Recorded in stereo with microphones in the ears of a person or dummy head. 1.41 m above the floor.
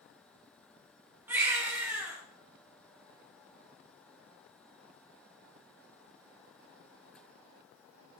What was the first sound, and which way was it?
A baby crying, 15° right (ahead or behind).